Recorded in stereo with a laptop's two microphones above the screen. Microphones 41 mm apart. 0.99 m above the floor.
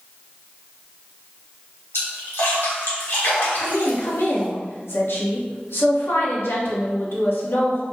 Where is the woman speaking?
75° left (ahead or behind), 1.4 m.